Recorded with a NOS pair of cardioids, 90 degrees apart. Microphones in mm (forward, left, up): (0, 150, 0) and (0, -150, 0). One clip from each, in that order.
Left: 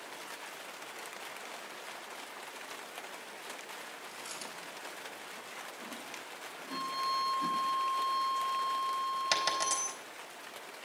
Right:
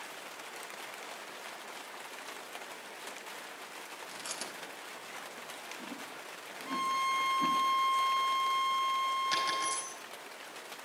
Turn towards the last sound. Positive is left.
turn(degrees=70)